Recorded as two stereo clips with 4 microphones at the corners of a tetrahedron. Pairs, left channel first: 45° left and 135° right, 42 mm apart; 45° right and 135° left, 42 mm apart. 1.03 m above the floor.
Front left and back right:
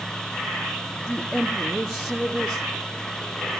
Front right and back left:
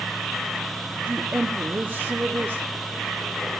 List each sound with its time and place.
0.9 s a woman speaking: 135° left, 1.9 m